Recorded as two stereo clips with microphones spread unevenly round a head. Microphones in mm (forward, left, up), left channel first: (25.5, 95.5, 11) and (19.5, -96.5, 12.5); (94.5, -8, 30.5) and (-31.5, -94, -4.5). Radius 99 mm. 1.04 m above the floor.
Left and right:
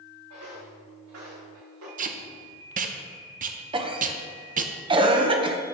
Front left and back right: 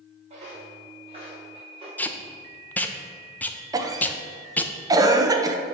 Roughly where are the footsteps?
Right.